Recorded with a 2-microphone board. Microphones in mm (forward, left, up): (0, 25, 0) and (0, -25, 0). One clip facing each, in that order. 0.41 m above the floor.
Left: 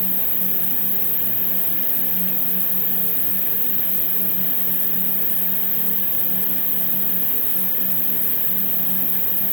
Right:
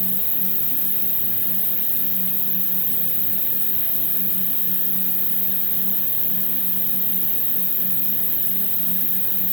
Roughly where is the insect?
Right.